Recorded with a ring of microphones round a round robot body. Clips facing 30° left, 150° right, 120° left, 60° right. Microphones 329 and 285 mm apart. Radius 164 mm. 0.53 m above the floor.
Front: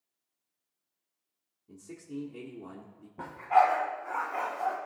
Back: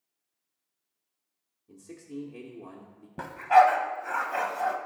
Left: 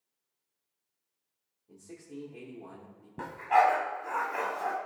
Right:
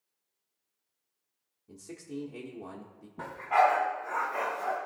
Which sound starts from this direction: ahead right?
A man speaking, at 1.7 s.